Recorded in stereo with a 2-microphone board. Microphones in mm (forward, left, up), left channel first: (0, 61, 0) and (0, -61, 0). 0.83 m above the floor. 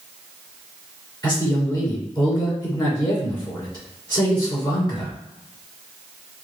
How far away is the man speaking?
About 2 m.